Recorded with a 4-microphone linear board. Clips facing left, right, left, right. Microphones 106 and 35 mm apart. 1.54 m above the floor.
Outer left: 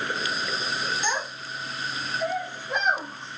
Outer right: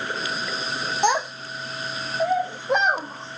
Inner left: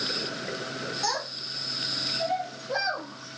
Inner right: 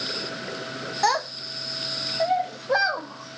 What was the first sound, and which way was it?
A child speaking, 60° right (ahead or behind).